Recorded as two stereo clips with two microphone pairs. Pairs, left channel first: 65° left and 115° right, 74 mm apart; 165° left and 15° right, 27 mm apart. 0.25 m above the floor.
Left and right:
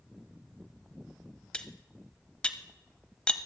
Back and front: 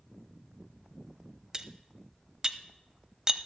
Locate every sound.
1.5 s cutlery clinking: 10° left, 0.5 m